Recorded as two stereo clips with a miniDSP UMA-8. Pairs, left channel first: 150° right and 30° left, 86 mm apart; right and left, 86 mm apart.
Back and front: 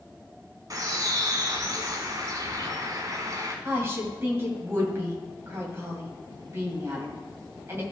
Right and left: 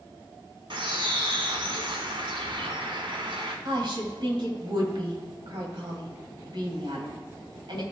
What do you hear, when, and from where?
0.7 s a bird: 75° left, 1.2 m
3.6 s a woman speaking: 85° left, 2 m